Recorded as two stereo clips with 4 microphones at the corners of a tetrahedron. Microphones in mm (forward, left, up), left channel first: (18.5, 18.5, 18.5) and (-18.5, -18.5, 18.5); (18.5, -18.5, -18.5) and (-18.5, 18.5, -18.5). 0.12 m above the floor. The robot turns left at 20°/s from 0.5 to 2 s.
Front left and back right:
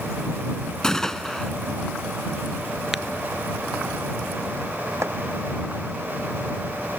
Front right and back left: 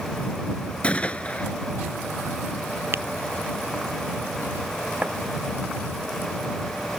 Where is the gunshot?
20° right; by 1.5 s 35° right.